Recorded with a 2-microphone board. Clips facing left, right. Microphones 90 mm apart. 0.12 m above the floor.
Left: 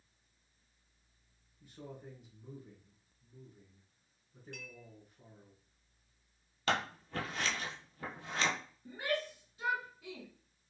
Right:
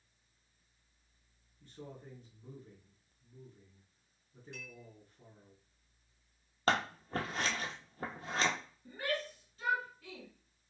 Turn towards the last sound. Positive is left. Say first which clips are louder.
# left 1 dB
turn(degrees=15)  # may be behind; listen again after turning